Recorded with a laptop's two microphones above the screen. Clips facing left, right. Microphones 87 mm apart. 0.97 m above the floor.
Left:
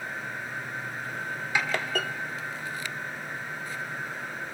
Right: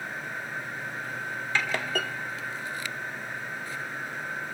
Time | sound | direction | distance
1.6 | a snare drum | 15° left (ahead or behind) | 1.7 m